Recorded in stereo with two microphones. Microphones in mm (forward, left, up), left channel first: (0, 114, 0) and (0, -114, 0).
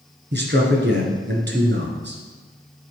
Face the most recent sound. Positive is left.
turn(degrees=-50)  # may be behind; listen again after turning